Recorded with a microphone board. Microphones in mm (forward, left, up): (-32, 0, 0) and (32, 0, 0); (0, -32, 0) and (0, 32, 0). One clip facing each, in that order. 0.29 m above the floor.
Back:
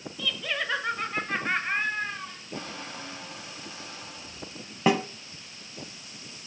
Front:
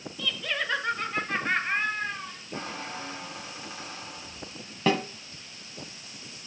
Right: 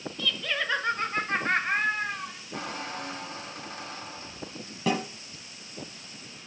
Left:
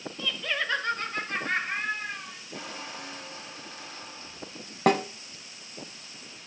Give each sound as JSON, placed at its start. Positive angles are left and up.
{"t": 0.2, "sound": "laughter", "azimuth_deg": 95, "distance_m": 1.2}
{"t": 2.5, "sound": "a squeak", "azimuth_deg": -60, "distance_m": 2.0}
{"t": 4.9, "sound": "a snare drum", "azimuth_deg": 110, "distance_m": 1.1}